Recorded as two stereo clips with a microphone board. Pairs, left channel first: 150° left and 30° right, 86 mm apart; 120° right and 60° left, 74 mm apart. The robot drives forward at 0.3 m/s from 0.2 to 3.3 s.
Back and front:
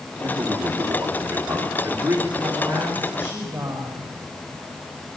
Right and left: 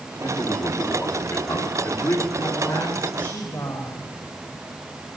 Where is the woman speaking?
105° right, 8.5 m.